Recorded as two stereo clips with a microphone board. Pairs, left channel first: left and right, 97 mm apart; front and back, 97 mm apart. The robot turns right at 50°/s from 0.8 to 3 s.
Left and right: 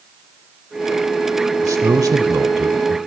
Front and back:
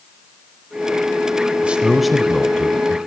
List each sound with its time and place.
1.6 s a man speaking: 115° right, 1.0 m; by 3.0 s 45° right, 1.0 m